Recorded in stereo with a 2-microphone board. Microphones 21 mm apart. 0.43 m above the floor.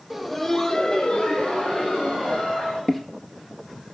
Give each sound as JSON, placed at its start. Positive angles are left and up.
{"t": 0.1, "sound": "laughter", "side_deg": -10, "distance_m": 0.8}
{"t": 2.9, "sound": "footsteps", "side_deg": 10, "distance_m": 0.8}